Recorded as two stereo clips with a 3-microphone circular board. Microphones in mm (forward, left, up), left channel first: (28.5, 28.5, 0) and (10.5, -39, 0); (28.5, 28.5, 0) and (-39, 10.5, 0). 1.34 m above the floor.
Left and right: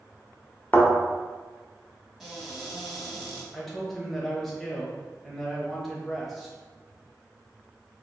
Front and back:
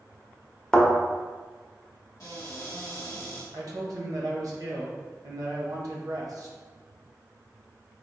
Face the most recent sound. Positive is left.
turn(degrees=165)